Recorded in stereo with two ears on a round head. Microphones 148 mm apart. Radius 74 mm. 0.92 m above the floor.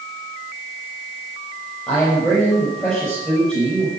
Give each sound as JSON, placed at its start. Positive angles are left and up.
{"t": 1.9, "sound": "a man speaking", "side_deg": 0, "distance_m": 5.5}